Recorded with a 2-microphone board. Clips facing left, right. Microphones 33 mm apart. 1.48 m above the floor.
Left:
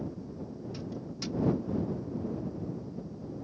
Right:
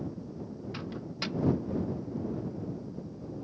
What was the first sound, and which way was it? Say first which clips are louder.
A microwave: right 3 dB; 45° right (ahead or behind).